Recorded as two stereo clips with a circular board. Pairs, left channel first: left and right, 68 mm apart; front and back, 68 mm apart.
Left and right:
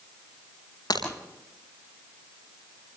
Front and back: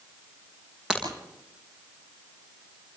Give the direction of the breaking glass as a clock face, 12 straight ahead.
9 o'clock.